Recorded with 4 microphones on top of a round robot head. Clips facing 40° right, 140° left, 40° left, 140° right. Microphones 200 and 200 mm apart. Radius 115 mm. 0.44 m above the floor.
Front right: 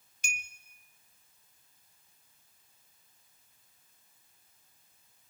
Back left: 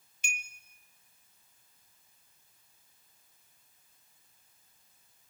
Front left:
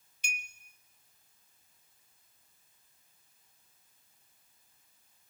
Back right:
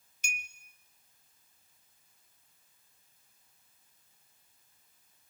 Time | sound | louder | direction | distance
0.2 | a clink | even, even | 90° right | 1.2 m